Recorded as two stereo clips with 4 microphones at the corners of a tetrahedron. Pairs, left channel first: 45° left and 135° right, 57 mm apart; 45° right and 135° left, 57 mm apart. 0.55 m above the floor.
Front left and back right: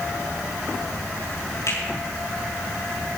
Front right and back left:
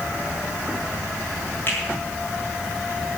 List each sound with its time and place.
1.7 s a finger snap: 15° left, 7 m